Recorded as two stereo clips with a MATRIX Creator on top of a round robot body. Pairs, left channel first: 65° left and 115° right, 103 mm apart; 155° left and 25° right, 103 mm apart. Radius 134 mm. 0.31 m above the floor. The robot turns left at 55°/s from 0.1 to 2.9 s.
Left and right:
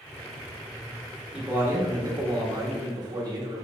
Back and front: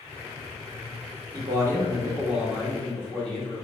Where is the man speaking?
40° right, 1.5 m; by 3.6 s 125° right, 1.5 m.